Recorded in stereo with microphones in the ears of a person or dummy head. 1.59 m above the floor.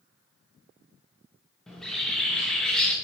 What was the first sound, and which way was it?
A bird, centre (ahead or behind).